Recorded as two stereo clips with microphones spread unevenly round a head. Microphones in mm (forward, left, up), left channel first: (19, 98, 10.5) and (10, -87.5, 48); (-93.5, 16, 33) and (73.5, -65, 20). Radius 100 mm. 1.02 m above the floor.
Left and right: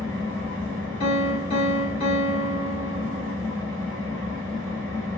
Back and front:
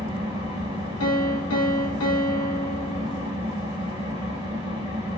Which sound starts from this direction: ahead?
An engine running, at 0.0 s.